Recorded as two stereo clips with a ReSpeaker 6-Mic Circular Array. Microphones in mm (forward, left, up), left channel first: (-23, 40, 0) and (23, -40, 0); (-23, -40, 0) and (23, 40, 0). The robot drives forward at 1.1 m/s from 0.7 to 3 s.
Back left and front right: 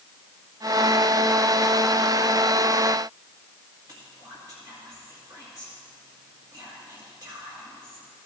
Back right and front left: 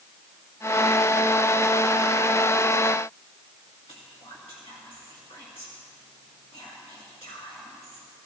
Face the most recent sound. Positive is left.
turn(degrees=-105)